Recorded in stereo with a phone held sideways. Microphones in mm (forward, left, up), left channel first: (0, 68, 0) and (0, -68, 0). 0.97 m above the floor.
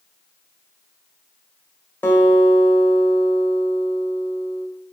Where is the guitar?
15° left (ahead or behind), 1.4 m.